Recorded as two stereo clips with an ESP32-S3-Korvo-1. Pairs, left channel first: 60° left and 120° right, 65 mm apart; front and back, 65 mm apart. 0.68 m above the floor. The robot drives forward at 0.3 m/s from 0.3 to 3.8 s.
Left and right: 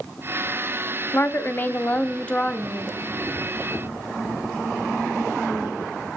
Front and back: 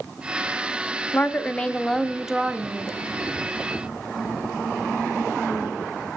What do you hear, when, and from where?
1.1 s a woman speaking: 40° left, 0.6 m; by 2.9 s 135° left, 0.6 m